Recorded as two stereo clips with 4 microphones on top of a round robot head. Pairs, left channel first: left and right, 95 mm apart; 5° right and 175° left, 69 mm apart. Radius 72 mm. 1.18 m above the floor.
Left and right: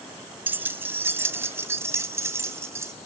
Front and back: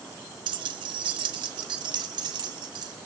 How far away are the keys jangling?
About 0.8 m.